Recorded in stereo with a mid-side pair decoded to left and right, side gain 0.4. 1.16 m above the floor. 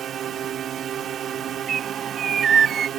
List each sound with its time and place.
0.0 s a drone: 60° right
1.7 s a bird: 50° right